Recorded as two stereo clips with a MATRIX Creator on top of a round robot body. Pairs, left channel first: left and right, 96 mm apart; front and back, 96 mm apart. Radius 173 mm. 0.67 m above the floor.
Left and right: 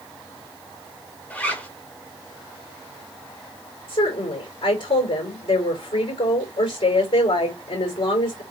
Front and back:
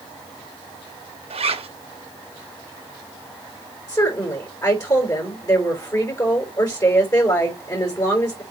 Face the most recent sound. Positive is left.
turn(degrees=55)